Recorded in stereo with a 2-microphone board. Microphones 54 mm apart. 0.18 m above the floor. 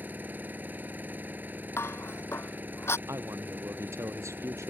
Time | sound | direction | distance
0.0 | an engine running | 35° right (ahead or behind) | ?
1.8 | dishes clattering | 50° left (ahead or behind) | ?
3.1 | a man speaking | 65° right (ahead or behind) | ?